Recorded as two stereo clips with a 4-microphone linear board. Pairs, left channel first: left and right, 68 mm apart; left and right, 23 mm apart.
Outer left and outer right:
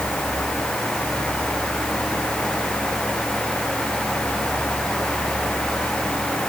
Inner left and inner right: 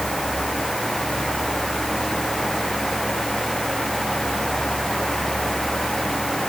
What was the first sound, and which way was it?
Only background noise.